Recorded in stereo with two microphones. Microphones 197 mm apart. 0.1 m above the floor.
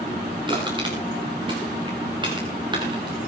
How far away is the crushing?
About 5 m.